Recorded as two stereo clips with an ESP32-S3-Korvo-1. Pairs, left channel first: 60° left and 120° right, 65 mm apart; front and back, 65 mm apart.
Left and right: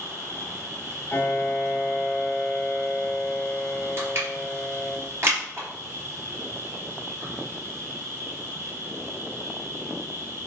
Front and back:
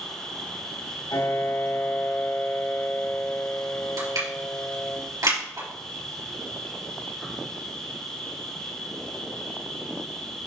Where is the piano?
Straight ahead, 4 m.